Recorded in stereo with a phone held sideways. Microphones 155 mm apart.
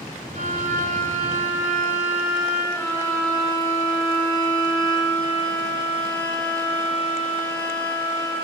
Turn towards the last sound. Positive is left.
turn(degrees=10)  # may be behind; listen again after turning